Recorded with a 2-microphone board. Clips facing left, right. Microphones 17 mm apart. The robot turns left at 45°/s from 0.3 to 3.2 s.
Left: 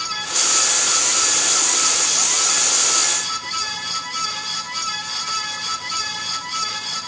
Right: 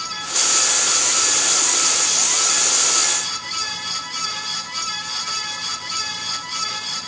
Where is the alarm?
I don't hear an alarm.